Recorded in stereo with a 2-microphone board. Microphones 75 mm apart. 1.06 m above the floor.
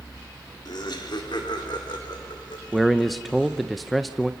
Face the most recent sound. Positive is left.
turn(degrees=0)  # may be behind; listen again after turning